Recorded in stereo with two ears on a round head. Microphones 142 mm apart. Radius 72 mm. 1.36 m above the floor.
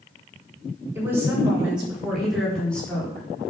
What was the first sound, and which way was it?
A woman speaking, 15° right (ahead or behind).